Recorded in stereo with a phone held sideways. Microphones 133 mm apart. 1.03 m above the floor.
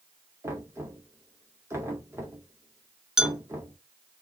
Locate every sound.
0.4 s knocking: 20° right (ahead or behind), 1.9 m
3.2 s a clink: 5° right (ahead or behind), 1.0 m